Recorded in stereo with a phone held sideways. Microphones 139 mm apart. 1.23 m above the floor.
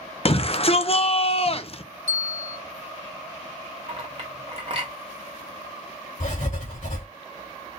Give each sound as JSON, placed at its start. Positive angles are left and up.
{"t": 0.2, "sound": "a shout", "side_deg": 45, "distance_m": 0.5}
{"t": 2.1, "sound": "a bell", "side_deg": 55, "distance_m": 1.5}
{"t": 3.9, "sound": "a clink", "side_deg": -45, "distance_m": 1.4}
{"t": 6.2, "sound": "writing", "side_deg": 65, "distance_m": 2.5}